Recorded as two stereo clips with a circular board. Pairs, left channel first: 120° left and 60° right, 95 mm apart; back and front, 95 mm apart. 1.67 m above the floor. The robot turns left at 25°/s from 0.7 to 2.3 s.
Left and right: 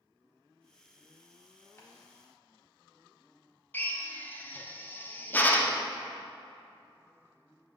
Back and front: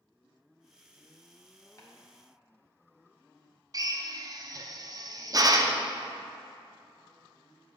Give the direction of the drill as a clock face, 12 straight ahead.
10 o'clock.